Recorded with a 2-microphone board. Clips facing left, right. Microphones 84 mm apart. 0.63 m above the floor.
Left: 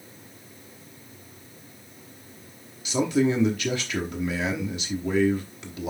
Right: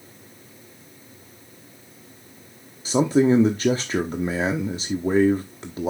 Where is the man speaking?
35° right (ahead or behind), 1.0 m.